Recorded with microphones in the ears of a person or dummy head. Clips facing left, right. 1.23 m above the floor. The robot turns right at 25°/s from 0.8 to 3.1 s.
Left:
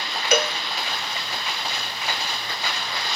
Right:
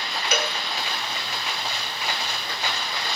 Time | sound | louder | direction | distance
0.3 | a cowbell | left 6 dB | 40° left (ahead or behind) | 1.4 m